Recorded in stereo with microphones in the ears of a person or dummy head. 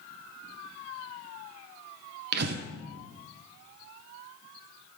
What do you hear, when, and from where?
2.3 s breathing: 60° right (ahead or behind), 0.6 m